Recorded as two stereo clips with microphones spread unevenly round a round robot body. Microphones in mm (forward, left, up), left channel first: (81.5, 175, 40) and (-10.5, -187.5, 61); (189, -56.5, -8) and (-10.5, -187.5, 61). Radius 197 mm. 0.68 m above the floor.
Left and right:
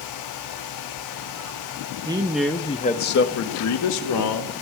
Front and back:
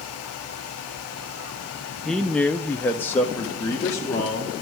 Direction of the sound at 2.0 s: 30° right.